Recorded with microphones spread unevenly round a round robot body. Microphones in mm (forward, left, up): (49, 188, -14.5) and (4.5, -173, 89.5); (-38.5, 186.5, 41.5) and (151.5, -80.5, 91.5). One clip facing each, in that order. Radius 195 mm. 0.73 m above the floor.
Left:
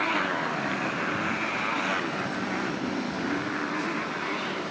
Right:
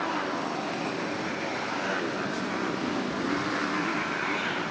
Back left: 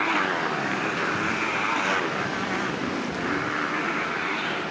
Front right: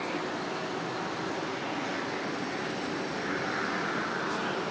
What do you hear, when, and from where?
0.0 s a motorcycle: 125° left; by 4.7 s 175° right